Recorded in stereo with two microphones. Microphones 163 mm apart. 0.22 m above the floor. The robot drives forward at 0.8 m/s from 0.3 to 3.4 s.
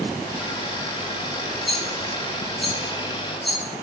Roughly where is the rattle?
Centre.